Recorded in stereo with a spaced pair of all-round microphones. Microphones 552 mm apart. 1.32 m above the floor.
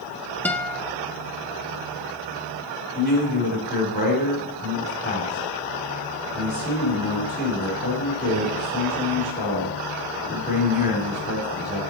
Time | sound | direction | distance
0.5 | a guitar | 5° left (ahead or behind) | 0.6 m
3.0 | a man speaking | 15° left (ahead or behind) | 3 m